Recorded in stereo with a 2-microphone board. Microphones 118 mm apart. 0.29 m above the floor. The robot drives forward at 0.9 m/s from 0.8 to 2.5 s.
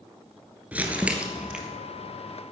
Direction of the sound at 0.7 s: 15° right (ahead or behind).